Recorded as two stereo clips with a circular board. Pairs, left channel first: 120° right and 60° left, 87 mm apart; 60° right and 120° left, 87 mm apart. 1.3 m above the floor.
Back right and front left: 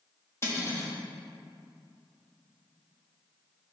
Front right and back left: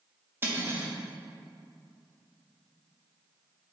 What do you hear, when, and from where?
0.4 s cutlery clinking: 175° right, 1.2 m